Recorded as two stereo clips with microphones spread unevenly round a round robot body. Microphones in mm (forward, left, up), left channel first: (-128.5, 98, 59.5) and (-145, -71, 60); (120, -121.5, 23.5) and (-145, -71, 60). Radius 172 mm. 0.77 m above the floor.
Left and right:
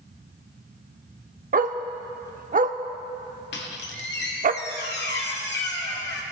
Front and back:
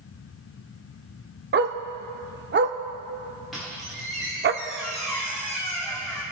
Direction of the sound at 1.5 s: 140° right.